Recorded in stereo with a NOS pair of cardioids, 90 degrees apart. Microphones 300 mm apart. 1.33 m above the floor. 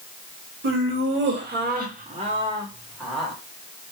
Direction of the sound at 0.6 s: 50° right.